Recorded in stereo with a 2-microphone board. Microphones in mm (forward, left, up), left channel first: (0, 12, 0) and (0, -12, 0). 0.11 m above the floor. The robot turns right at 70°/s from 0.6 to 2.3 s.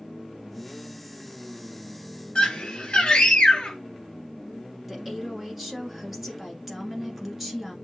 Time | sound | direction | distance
2.4 | a scream | 50° left (ahead or behind) | 1.7 m
4.9 | a woman speaking | 10° right (ahead or behind) | 1.2 m